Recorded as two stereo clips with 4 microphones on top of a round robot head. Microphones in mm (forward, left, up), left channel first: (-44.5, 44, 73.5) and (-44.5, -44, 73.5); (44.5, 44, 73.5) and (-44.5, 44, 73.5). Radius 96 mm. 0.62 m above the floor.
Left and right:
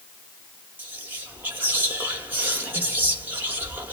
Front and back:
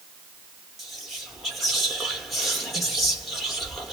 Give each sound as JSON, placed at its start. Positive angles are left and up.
{"t": 0.8, "sound": "whispering", "azimuth_deg": -90, "distance_m": 0.9}